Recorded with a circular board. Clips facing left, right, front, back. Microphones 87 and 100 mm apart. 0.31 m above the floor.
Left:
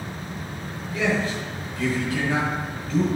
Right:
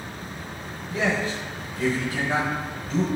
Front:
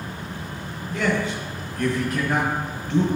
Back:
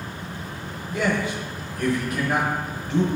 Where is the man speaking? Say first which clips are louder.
Left 1 dB, even; 135° right, 1.3 m.